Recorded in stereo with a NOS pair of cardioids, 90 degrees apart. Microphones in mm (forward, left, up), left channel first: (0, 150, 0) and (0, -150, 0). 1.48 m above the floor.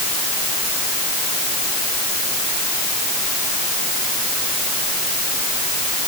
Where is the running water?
No running water in this recording.